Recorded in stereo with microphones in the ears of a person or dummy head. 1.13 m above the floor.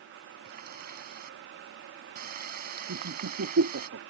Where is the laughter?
85° right.